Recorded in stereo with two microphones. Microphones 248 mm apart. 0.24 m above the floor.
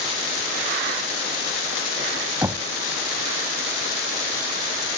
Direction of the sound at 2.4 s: 15° right (ahead or behind).